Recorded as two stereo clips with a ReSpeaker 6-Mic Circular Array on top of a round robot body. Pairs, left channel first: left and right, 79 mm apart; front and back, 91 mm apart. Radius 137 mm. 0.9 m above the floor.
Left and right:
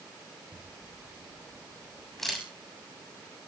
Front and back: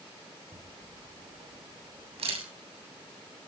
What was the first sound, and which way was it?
A camera shutter, straight behind.